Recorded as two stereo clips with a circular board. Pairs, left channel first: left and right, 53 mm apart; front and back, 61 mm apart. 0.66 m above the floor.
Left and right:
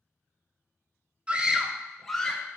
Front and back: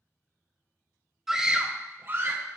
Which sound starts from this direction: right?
A scream, at 1.3 s.